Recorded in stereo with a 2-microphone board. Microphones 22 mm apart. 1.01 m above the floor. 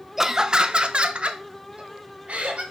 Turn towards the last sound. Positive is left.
turn(degrees=-65)  # may be behind; listen again after turning